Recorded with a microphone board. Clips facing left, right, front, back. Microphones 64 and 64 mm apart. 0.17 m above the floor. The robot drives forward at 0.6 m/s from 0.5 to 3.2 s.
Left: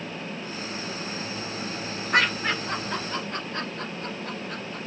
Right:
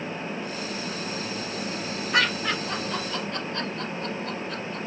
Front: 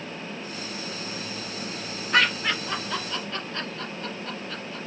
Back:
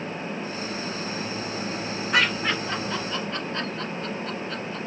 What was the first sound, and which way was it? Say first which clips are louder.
Laughter: left 1 dB, front 1 dB; 105° left.